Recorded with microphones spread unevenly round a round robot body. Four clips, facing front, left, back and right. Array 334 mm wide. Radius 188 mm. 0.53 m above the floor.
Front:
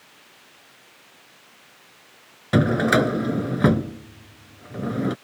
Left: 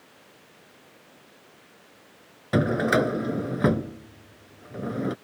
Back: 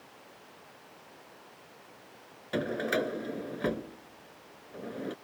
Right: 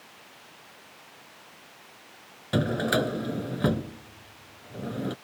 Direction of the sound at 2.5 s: 5° left.